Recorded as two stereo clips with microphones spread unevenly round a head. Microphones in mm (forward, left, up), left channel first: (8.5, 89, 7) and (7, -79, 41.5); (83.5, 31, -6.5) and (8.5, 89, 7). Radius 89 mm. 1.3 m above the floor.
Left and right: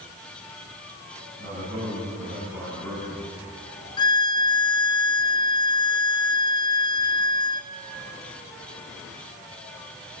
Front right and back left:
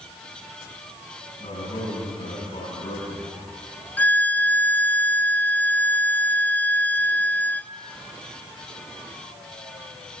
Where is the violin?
30° left, 0.7 m.